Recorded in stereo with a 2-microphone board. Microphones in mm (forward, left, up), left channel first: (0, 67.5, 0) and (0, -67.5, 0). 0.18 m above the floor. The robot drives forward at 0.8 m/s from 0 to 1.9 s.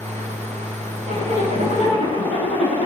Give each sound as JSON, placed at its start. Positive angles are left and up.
{"t": 1.1, "sound": "a zipper", "side_deg": 75, "distance_m": 9.0}